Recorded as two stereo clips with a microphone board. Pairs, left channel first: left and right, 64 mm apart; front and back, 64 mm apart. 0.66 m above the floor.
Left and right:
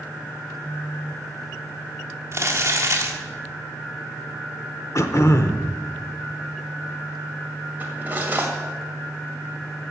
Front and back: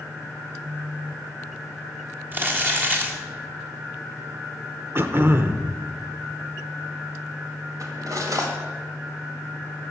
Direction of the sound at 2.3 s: 130° right.